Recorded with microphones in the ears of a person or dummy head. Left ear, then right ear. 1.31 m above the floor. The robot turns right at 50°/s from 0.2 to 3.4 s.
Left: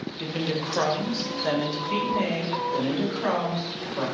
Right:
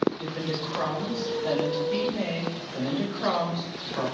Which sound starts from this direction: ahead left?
A woman speaking, at 0.2 s.